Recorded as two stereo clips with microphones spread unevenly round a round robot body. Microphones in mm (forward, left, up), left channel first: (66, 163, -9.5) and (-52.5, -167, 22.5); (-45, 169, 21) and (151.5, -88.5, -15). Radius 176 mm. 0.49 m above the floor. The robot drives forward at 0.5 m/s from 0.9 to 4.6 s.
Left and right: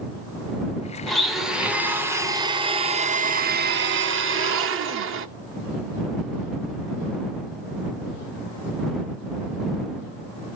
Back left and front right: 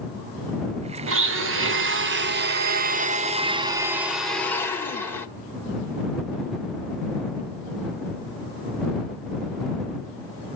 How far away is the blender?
About 1.6 m.